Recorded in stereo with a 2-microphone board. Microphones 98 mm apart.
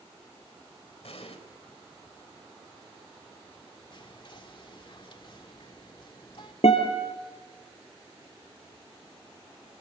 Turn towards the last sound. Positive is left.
turn(degrees=75)  # may be behind; listen again after turning